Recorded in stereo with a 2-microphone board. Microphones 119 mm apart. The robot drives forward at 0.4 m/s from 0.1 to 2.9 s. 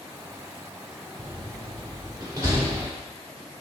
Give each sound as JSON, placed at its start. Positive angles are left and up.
{"t": 1.2, "sound": "a door slam", "side_deg": -40, "distance_m": 1.0}